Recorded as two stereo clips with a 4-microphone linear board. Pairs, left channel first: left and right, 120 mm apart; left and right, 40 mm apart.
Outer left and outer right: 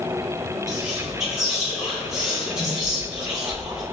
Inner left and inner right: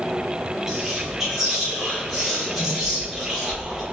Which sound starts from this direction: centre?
Whispering, at 0.7 s.